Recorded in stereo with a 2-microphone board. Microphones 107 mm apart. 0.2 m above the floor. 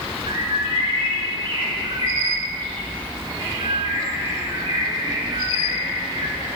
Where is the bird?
50° right (ahead or behind), 3 m.